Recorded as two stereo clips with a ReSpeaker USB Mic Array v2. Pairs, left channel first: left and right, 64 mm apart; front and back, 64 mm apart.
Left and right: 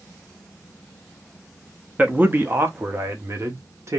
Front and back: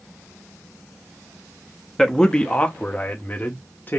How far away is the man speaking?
About 0.6 m.